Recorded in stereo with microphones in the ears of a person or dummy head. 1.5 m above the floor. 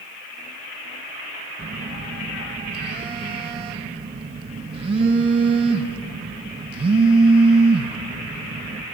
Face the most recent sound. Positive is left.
turn(degrees=-35)  # may be behind; listen again after turning